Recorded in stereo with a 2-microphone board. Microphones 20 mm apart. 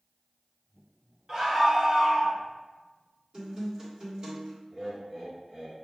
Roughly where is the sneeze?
I don't hear a sneeze.